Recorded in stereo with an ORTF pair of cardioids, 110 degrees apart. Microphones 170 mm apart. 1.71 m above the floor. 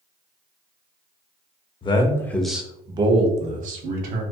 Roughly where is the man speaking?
Ahead left.